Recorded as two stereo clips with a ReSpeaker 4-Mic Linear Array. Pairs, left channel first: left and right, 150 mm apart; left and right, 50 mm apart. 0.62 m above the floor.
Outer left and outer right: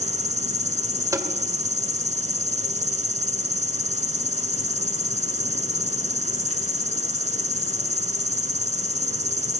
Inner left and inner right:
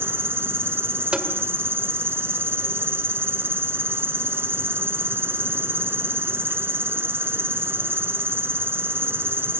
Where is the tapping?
20° right (ahead or behind), 2 m.